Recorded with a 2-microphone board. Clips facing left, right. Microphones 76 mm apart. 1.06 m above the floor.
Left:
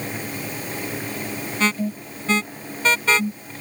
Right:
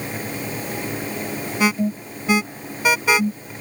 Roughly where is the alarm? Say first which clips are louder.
Right 3 dB; centre.